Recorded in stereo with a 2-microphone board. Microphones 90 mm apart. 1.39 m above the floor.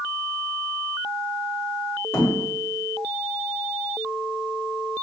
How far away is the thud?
About 1.8 m.